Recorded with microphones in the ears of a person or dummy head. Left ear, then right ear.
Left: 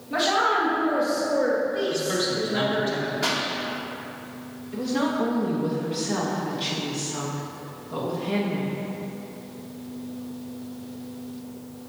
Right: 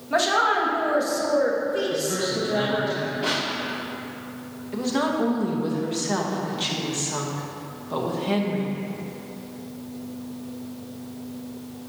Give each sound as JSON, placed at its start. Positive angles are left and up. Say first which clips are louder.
{"t": 0.1, "sound": "a woman speaking", "louder": "right 1 dB", "side_deg": -40, "distance_m": 1.4}
{"t": 1.9, "sound": "a man speaking", "louder": "even", "side_deg": 35, "distance_m": 2.0}
{"t": 3.2, "sound": "a pop", "louder": "even", "side_deg": 55, "distance_m": 2.0}
{"t": 4.7, "sound": "a woman speaking", "louder": "right 1 dB", "side_deg": -25, "distance_m": 1.0}